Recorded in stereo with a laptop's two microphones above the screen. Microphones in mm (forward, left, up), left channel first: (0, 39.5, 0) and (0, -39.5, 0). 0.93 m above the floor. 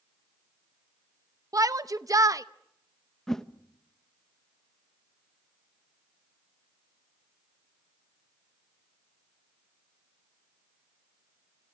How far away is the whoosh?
About 0.6 m.